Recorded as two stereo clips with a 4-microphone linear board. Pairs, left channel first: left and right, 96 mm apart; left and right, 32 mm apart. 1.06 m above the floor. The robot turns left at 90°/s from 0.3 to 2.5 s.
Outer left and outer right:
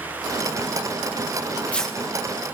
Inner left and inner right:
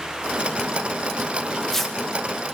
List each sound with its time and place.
1.4 s tearing paper: 40° left (ahead or behind), 0.8 m; by 1.9 s 5° right (ahead or behind), 0.8 m